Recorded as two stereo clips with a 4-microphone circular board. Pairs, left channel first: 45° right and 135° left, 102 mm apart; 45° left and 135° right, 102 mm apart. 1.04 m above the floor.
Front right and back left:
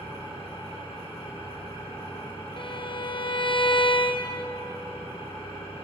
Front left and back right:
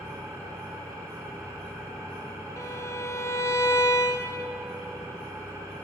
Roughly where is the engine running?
Right.